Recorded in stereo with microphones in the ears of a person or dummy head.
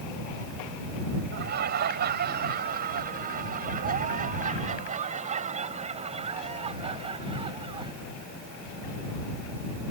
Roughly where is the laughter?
Right.